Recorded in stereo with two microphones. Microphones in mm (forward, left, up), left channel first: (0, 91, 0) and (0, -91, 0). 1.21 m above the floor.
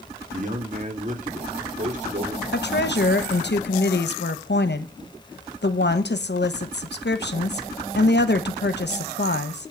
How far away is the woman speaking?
About 1.0 m.